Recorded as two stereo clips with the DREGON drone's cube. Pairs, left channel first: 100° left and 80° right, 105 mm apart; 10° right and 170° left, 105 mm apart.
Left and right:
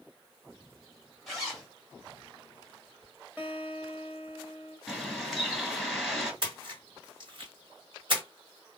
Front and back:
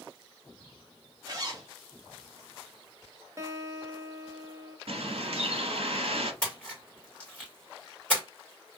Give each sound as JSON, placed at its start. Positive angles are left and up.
{"t": 1.3, "sound": "a zipper", "azimuth_deg": -170, "distance_m": 1.4}
{"t": 3.4, "sound": "a guitar", "azimuth_deg": -145, "distance_m": 0.9}
{"t": 4.9, "sound": "a bird", "azimuth_deg": -170, "distance_m": 1.2}
{"t": 6.4, "sound": "a splash", "azimuth_deg": -85, "distance_m": 2.0}